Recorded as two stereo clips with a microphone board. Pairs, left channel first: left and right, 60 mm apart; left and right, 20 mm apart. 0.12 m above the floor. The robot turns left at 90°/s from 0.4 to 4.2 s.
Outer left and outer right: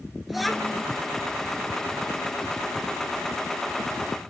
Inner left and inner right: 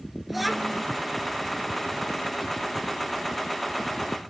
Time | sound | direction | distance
0.3 | a child speaking | 175° right | ?